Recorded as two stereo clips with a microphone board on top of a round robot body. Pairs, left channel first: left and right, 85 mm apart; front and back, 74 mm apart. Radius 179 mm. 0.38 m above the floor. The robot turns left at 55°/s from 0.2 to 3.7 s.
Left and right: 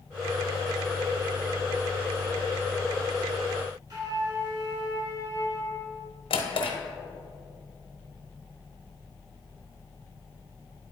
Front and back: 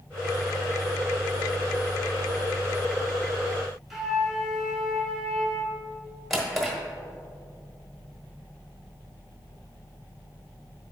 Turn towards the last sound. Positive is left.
turn(degrees=90)